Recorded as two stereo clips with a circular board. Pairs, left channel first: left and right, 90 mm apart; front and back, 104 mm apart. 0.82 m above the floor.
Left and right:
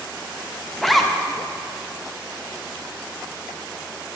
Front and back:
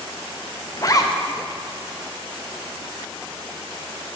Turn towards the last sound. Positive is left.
turn(degrees=5)